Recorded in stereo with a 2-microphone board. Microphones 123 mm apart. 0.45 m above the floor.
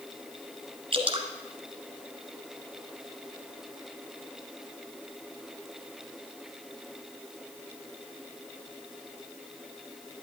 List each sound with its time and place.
0.9 s dripping: 50° right (ahead or behind), 1.3 m